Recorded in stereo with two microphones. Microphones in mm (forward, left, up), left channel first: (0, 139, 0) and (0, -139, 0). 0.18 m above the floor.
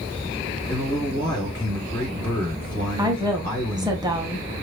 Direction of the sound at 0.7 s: 15° left (ahead or behind).